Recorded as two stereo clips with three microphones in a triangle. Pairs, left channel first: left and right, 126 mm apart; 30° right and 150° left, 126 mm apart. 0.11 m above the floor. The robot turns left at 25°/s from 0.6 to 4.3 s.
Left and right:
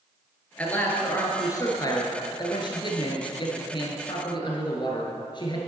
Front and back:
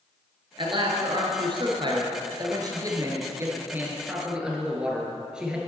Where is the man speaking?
160° left, 1.8 m; by 5.6 s 70° left, 1.8 m.